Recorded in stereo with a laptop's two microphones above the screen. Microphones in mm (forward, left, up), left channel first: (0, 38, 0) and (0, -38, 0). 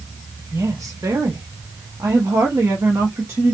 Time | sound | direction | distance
0.5 | a woman speaking | 45° right (ahead or behind) | 1.1 m